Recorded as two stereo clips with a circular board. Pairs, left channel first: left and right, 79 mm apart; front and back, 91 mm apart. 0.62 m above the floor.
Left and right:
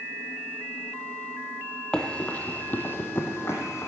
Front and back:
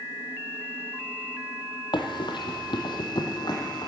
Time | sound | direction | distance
1.9 | running footsteps | 10° left | 1.3 m